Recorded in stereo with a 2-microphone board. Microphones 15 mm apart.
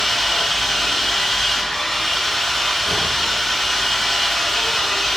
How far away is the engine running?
About 4.5 m.